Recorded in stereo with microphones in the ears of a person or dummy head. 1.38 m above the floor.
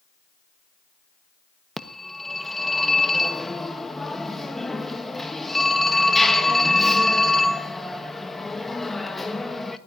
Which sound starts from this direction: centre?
A phone ringing, at 1.8 s.